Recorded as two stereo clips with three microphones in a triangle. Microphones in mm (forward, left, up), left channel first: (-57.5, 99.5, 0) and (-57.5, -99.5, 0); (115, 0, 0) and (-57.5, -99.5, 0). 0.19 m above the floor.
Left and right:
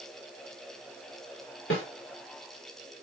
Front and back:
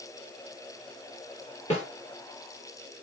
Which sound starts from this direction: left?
A snare drum, at 1.7 s.